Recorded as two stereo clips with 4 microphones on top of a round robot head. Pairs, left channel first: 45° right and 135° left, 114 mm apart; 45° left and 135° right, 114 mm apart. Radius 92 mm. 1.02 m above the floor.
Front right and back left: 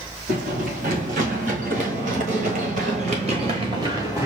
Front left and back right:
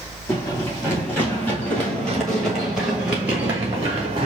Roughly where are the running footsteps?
Behind left.